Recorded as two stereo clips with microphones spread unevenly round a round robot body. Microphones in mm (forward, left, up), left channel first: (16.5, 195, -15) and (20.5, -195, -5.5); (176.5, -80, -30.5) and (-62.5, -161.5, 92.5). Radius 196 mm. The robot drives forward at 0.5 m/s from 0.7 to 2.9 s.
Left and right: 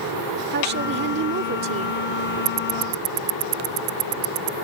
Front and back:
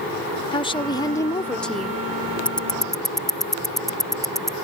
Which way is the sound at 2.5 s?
65° right.